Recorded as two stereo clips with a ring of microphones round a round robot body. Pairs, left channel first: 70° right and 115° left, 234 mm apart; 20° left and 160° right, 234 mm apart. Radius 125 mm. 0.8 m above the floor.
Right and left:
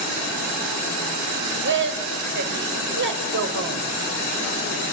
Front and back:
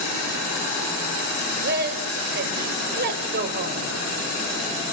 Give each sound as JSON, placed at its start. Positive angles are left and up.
{"t": 1.6, "sound": "a woman speaking", "azimuth_deg": 155, "distance_m": 3.5}